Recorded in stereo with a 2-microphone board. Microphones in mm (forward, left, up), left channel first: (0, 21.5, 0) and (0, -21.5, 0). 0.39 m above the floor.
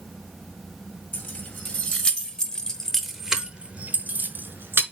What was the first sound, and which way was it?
Keys jangling, 45° left (ahead or behind).